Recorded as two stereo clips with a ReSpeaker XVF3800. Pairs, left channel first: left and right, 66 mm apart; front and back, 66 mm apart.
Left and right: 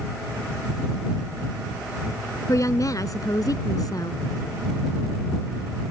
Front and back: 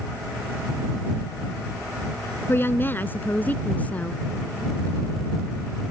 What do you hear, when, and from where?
2.5 s a woman speaking: 55° left; by 4.2 s 70° left